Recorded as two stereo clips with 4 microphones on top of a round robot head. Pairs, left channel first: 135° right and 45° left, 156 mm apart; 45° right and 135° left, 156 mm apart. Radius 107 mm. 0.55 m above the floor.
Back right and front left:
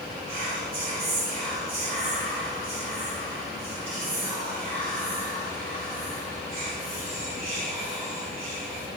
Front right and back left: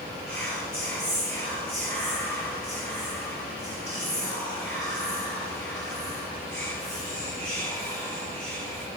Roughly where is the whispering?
Ahead left.